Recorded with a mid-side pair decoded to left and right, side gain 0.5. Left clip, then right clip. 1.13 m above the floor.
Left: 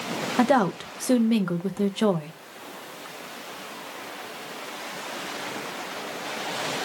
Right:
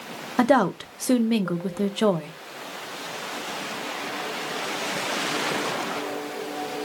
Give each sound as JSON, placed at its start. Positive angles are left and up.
{"t": 0.4, "sound": "a woman speaking", "azimuth_deg": -15, "distance_m": 0.8}